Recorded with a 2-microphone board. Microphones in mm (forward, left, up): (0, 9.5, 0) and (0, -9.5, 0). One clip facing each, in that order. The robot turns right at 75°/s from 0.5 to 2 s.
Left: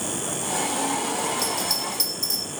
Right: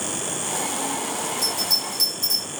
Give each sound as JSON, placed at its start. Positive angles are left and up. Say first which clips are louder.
{"t": 1.4, "sound": "a bell", "louder": "right 2 dB", "side_deg": 30, "distance_m": 1.7}